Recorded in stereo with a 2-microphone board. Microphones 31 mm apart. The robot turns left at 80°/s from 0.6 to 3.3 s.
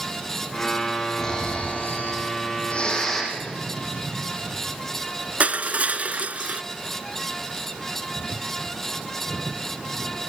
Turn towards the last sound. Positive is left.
turn(degrees=-55)  # may be behind; listen again after turning